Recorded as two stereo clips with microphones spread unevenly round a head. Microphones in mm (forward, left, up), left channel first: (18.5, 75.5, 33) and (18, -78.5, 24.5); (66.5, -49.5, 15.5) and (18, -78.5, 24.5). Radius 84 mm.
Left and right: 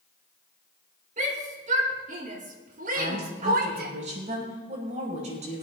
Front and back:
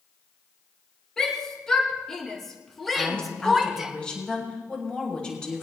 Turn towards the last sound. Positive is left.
turn(degrees=-40)